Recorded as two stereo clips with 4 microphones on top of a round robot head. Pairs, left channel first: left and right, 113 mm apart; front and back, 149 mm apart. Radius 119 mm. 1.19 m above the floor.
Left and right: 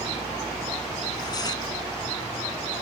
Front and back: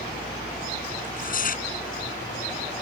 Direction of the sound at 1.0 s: 25° left.